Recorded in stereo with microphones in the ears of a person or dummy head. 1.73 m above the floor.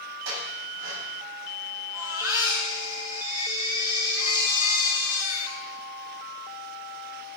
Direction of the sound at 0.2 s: 75° right (ahead or behind).